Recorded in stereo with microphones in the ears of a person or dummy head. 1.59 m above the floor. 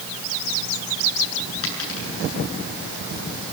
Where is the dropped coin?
80° left, 8.5 m.